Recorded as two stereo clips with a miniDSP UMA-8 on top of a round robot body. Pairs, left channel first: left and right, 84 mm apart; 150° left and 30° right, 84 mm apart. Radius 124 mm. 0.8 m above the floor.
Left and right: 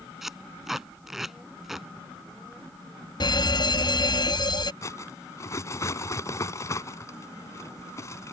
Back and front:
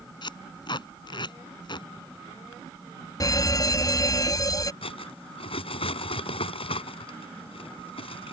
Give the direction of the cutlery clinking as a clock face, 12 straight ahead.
7 o'clock.